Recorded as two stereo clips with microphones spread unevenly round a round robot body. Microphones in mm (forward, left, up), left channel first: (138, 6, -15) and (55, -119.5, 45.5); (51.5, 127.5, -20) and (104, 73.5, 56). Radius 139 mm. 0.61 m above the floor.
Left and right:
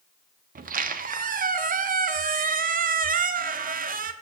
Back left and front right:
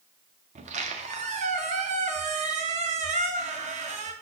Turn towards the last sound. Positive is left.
turn(degrees=-85)